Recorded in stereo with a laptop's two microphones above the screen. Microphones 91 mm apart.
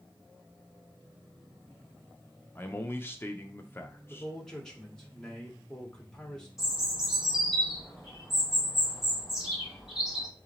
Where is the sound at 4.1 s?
5° left (ahead or behind), 1.6 m.